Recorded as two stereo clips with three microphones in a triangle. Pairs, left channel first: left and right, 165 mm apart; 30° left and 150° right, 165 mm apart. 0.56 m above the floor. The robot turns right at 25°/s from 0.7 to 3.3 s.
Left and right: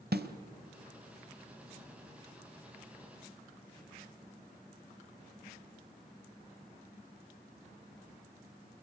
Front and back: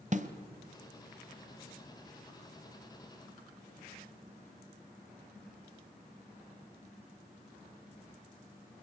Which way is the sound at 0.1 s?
105° right.